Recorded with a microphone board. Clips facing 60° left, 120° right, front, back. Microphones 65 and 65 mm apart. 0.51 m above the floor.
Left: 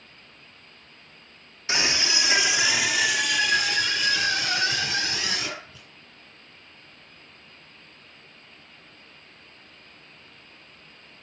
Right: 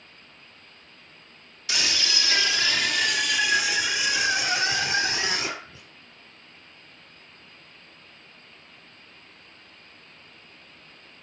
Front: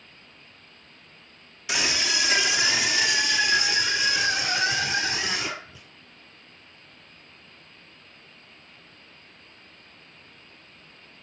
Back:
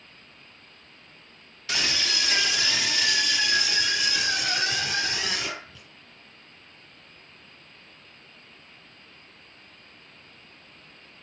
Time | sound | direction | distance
1.7 | a scream | 60° left | 1.5 m